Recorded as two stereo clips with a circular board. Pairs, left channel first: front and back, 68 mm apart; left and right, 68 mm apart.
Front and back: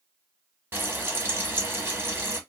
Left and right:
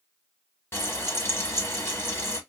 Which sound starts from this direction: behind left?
Frying, at 0.7 s.